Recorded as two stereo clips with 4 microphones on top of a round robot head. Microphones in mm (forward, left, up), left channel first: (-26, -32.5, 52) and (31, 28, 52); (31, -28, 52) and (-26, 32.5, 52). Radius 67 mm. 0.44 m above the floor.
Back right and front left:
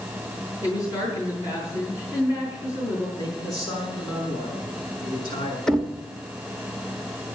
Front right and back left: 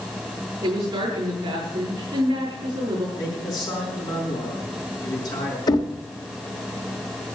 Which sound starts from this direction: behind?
A woman speaking, at 0.6 s.